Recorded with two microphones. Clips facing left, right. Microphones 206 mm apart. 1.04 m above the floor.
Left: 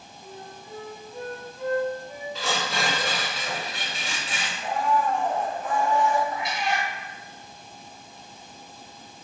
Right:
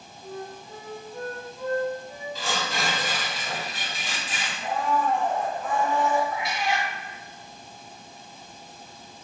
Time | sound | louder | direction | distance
0.2 | a flute | right 6 dB | 5° left (ahead or behind) | 0.9 m
2.4 | tearing paper | left 2 dB | 70° left (ahead or behind) | 1.4 m
4.6 | a blender | left 1 dB | 15° left (ahead or behind) | 0.9 m
6.3 | a cat meowing | even | centre (ahead or behind) | 1.0 m